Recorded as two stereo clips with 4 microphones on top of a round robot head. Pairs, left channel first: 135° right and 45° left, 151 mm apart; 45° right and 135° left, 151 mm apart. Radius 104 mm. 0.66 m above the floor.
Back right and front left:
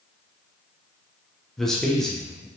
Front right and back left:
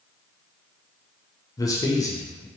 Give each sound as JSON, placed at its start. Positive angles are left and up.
{"t": 1.6, "sound": "a man speaking", "azimuth_deg": -55, "distance_m": 0.5}